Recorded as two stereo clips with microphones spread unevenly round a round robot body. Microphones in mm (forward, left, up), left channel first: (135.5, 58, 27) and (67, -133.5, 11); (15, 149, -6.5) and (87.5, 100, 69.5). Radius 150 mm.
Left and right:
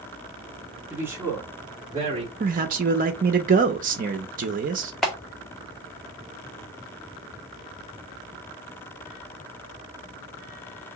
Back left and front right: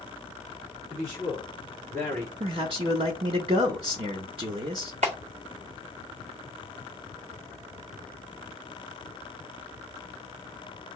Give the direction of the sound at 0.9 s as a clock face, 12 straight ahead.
1 o'clock.